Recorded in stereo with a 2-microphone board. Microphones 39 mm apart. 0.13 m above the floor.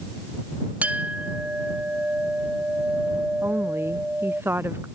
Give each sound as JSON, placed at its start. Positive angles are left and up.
{"t": 0.8, "sound": "a clink", "side_deg": -35}
{"t": 3.4, "sound": "a woman speaking", "side_deg": -75}